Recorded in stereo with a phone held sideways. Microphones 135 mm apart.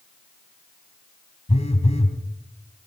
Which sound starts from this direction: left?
A phone buzzing, at 1.5 s.